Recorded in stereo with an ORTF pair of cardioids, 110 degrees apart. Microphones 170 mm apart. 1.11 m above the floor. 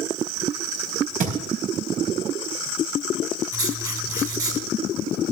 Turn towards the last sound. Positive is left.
turn(degrees=-20)